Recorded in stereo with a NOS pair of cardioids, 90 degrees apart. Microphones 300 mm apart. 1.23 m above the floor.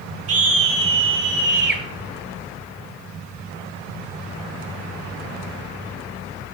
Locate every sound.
0.3 s a scream: 50° right, 4 m; by 1.8 s 35° right, 6 m